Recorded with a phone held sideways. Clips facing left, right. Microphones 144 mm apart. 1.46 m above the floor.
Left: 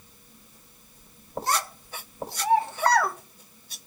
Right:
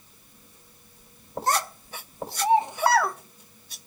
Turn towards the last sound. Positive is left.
turn(degrees=5)  # may be behind; listen again after turning